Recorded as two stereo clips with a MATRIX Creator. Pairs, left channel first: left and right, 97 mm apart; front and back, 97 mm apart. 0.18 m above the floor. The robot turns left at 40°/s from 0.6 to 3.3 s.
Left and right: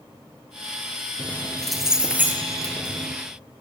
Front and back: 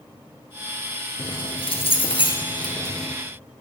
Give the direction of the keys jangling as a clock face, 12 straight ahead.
11 o'clock.